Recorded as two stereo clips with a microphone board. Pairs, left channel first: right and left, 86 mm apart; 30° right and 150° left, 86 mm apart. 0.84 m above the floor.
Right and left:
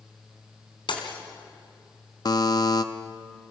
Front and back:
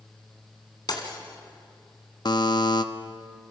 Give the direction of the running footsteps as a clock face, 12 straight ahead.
No running footsteps in this recording.